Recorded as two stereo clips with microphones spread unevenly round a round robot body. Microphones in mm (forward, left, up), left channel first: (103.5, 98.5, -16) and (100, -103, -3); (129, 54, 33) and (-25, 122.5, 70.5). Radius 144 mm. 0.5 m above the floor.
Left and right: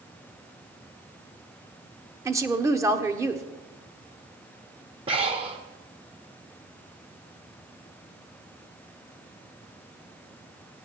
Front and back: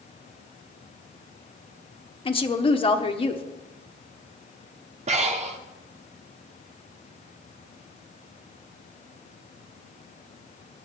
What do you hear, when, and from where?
2.2 s a woman speaking: 15° right, 1.2 m
5.1 s breathing: 150° right, 0.8 m